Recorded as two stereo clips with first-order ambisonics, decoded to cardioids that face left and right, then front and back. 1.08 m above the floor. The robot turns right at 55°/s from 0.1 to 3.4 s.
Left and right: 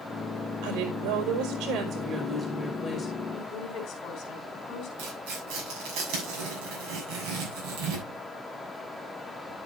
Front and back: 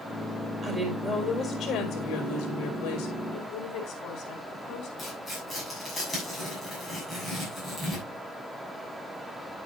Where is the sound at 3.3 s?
35° left, 4.5 m; by 4.9 s 40° left, 4.5 m.